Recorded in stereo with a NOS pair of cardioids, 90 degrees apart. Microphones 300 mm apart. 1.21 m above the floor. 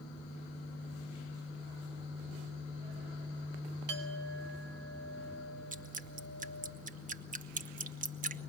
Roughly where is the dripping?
Ahead right.